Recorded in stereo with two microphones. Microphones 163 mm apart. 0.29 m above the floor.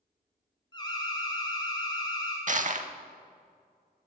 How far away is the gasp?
No gasp in this recording.